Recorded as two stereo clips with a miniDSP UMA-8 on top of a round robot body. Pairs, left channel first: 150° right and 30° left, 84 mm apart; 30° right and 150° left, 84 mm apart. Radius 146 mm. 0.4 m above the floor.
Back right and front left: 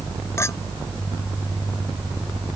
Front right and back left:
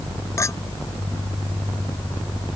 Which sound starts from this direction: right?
A clink, at 0.4 s.